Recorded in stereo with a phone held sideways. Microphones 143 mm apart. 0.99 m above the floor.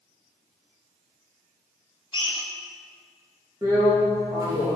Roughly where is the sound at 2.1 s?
Left.